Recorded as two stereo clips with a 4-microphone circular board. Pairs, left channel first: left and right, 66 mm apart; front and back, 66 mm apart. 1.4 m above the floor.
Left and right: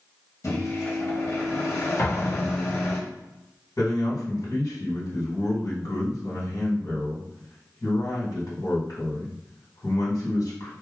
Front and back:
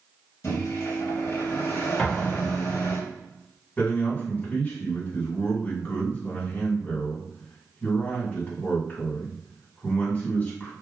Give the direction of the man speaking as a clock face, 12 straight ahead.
10 o'clock.